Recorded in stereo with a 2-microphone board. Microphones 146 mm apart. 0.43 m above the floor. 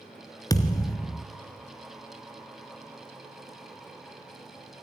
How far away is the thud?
About 1.5 m.